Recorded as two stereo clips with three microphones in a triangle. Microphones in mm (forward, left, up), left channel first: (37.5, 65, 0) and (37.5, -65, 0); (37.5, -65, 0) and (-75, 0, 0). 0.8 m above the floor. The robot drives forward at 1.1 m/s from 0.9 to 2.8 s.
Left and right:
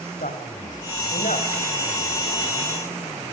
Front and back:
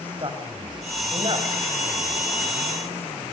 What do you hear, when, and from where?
0.2 s a man speaking: 100° left, 4.5 m; by 1.5 s 105° left, 4.5 m